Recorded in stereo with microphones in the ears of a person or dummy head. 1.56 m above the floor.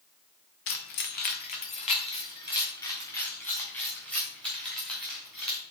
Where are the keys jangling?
55° left (ahead or behind), 1.0 m; by 5.6 s centre (ahead or behind), 3 m.